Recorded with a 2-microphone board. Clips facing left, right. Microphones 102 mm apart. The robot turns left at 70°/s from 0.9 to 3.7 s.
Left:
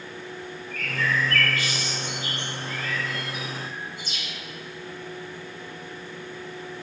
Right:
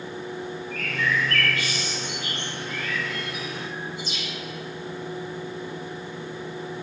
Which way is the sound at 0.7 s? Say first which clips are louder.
Even; 40° right (ahead or behind).